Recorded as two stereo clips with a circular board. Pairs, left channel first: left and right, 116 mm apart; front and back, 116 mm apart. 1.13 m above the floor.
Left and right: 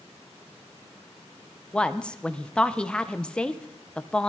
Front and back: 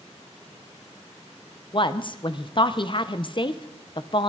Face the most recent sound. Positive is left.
turn(degrees=10)